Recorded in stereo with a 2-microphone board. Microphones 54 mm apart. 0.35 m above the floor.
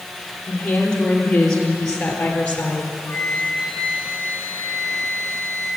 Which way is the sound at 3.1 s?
45° left (ahead or behind).